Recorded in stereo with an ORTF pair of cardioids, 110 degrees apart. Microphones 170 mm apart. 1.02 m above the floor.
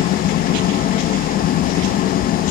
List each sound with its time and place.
0.0 s an engine running: 60° left, 0.8 m